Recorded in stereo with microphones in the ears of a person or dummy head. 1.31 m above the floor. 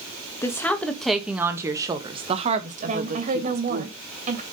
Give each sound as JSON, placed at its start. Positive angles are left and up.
{"t": 0.4, "sound": "a woman speaking", "side_deg": 10, "distance_m": 2.0}
{"t": 2.9, "sound": "a woman speaking", "side_deg": -45, "distance_m": 2.5}